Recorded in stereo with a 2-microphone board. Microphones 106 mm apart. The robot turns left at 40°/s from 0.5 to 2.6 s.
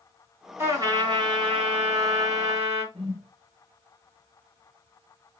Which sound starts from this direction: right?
A whoosh, at 2.9 s.